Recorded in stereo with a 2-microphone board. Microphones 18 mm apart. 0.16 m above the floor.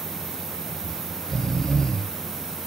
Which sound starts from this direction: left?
Snoring, at 0.8 s.